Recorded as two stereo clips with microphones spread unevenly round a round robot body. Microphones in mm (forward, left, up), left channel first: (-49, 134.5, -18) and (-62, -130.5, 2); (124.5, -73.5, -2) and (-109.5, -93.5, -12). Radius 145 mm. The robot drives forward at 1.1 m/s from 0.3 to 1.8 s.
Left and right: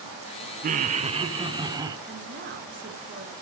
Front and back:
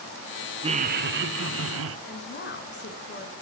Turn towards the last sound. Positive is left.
turn(degrees=-35)